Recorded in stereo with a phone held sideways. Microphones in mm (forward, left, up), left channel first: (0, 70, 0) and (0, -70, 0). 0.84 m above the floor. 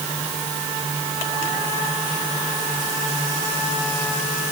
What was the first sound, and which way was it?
Only background noise.